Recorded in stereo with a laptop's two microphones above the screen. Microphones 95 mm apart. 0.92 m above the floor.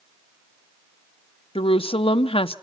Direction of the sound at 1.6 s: 80° left.